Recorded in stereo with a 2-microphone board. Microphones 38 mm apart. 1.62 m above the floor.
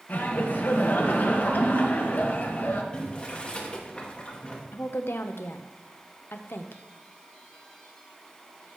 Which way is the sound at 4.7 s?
80° left.